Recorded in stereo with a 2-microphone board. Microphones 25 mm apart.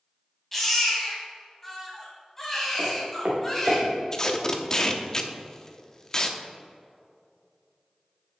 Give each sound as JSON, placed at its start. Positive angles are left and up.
{"t": 0.5, "sound": "a baby crying", "side_deg": 15, "distance_m": 2.0}
{"t": 2.8, "sound": "footsteps", "side_deg": -75, "distance_m": 2.5}
{"t": 4.1, "sound": "tape being pulled", "side_deg": 25, "distance_m": 0.7}